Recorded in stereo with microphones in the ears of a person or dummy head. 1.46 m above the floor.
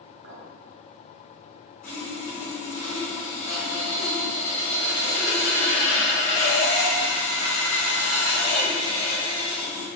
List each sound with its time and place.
0.2 s a clink: 70° right (ahead or behind), 2 m
1.8 s sawing: 45° left (ahead or behind), 3 m